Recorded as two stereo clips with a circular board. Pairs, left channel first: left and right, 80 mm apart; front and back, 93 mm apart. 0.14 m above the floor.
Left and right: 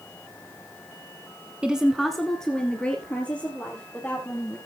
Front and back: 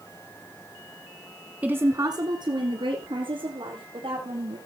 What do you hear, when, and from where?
1.6 s a woman speaking: 140° right, 1.1 m; by 4.6 s 160° left, 5 m